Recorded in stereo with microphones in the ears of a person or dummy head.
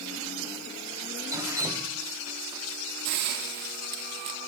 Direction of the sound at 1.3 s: 10° right (ahead or behind).